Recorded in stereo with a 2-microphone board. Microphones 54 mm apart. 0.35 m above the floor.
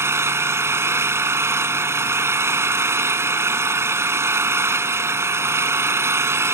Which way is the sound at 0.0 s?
55° right (ahead or behind).